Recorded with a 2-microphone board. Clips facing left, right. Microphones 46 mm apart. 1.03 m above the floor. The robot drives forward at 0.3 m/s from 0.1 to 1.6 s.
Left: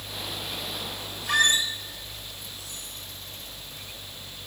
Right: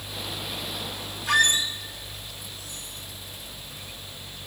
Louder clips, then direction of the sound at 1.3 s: Right 1 dB; 65° right (ahead or behind).